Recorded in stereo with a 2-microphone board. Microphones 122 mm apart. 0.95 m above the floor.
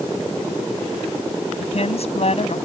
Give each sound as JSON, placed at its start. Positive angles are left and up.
{"t": 1.6, "sound": "a woman speaking", "side_deg": 55}